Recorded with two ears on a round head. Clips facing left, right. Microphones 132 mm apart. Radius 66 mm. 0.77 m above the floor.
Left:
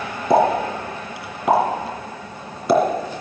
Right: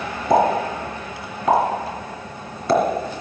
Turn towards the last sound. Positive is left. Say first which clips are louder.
# left 1 dB
turn(degrees=5)  # may be behind; listen again after turning